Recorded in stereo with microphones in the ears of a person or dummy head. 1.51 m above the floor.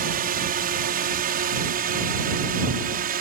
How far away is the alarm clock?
I don't hear an alarm clock.